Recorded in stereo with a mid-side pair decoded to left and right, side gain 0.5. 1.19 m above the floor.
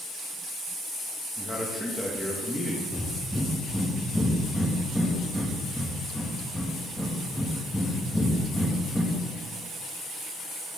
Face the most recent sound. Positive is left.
turn(degrees=0)